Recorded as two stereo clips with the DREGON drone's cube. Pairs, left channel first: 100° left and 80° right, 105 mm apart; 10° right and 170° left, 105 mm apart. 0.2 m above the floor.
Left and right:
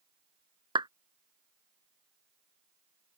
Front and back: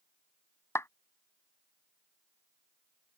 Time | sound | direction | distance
0.8 | a clap | 70° right | ?